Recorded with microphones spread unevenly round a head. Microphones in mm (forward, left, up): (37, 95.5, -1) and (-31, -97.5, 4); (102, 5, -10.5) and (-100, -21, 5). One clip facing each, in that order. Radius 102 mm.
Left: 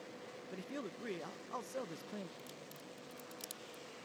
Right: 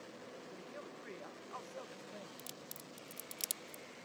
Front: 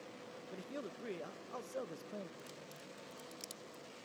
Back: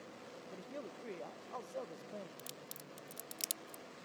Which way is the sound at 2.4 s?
160° right.